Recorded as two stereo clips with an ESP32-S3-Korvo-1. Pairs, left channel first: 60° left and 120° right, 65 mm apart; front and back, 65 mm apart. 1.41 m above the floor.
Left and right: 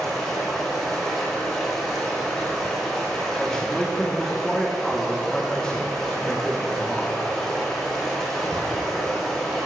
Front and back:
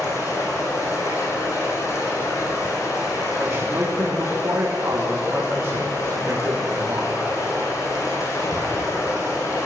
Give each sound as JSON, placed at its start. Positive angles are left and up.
{"t": 0.0, "sound": "running water", "azimuth_deg": -20, "distance_m": 6.0}
{"t": 3.4, "sound": "a man speaking", "azimuth_deg": 145, "distance_m": 1.8}